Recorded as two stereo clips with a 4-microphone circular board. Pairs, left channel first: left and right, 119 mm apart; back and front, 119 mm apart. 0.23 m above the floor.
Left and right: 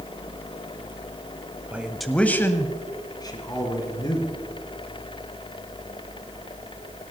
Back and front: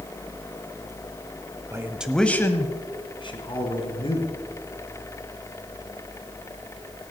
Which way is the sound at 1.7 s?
25° right.